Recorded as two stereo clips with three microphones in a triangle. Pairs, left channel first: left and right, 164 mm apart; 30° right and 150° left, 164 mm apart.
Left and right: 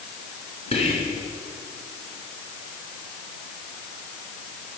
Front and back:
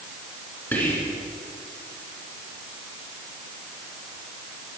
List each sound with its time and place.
0.7 s whispering: 45° left, 2.5 m